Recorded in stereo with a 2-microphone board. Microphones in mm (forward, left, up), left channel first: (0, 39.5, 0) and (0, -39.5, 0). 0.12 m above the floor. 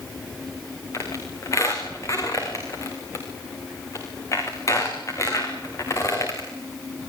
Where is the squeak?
40° left (ahead or behind), 6.5 m.